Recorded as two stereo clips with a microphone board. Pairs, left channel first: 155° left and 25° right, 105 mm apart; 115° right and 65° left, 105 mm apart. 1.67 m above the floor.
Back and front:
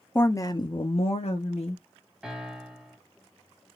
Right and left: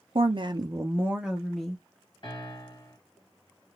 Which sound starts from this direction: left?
A woman speaking, at 0.1 s.